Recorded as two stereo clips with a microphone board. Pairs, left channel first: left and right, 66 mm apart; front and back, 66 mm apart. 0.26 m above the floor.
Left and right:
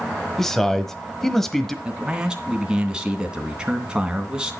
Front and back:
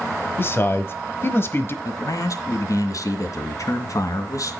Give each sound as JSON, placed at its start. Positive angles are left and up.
{"t": 0.4, "sound": "a man speaking", "azimuth_deg": 10, "distance_m": 1.2}
{"t": 1.9, "sound": "a man speaking", "azimuth_deg": -15, "distance_m": 2.5}